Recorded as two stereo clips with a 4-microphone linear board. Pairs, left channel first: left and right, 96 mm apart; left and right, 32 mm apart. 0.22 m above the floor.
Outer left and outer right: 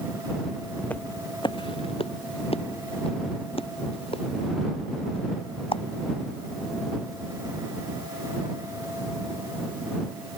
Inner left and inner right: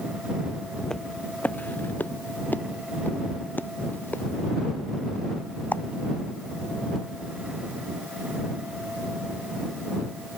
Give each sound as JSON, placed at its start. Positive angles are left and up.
{"t": 0.8, "sound": "footsteps", "side_deg": 10}